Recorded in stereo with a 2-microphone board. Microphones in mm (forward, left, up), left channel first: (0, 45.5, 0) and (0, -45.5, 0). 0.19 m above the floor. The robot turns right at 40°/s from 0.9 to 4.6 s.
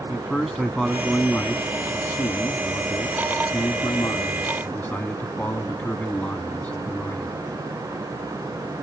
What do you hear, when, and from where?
0.1 s a man speaking: straight ahead, 1.2 m; by 7.4 s 150° left, 1.2 m